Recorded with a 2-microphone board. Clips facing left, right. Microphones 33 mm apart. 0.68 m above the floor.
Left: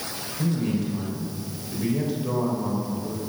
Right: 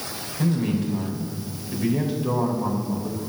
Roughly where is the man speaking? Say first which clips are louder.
Right 2 dB; centre.